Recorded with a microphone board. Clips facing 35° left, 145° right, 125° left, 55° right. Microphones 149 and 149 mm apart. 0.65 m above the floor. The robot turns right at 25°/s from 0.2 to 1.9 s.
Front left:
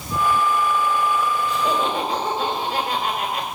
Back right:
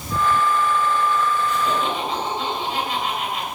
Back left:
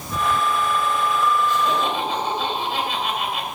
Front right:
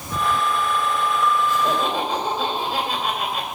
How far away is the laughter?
About 3 m.